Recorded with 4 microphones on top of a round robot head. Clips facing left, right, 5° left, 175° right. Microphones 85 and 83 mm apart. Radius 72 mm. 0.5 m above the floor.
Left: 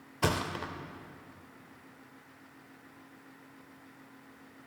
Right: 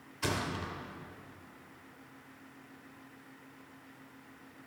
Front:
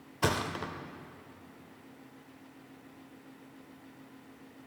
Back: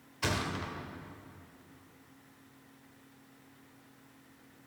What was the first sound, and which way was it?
A thud, 50° left.